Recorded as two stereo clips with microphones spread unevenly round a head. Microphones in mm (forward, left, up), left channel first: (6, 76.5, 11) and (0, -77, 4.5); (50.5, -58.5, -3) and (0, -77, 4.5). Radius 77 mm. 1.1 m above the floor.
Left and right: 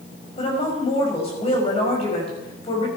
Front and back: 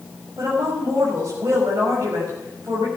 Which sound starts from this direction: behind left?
A woman speaking, at 0.4 s.